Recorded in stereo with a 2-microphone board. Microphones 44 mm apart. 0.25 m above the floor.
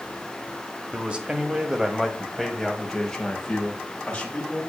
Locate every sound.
0.9 s a man speaking: 30° right (ahead or behind), 1.5 m; by 4.6 s 25° left (ahead or behind), 2 m